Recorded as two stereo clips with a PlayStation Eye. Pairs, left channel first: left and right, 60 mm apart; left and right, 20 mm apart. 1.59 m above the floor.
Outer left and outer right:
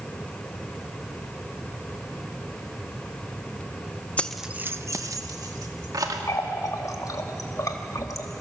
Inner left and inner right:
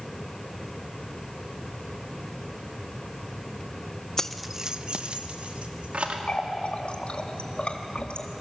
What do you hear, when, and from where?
4.2 s keys jangling: 25° left (ahead or behind), 0.7 m; by 6.2 s 75° right (ahead or behind), 2.5 m
6.3 s a running tap: 60° left (ahead or behind), 1.6 m